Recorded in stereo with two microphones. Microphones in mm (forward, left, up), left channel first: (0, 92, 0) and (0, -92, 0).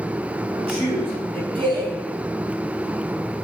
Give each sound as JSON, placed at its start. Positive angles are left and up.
{"t": 0.7, "sound": "a man speaking", "side_deg": -30, "distance_m": 4.5}